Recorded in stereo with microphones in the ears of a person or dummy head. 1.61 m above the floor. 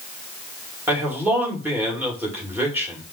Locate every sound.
0.9 s a man speaking: 10° right (ahead or behind), 2 m